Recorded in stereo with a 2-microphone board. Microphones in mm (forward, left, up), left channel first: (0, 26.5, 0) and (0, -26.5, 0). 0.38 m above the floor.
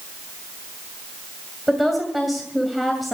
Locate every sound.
1.7 s a woman speaking: centre (ahead or behind), 2 m